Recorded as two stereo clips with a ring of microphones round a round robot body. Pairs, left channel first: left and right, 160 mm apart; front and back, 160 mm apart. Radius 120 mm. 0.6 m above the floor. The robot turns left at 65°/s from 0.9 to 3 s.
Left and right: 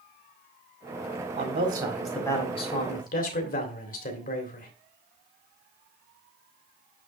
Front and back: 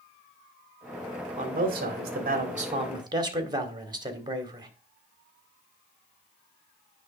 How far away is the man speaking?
About 2 m.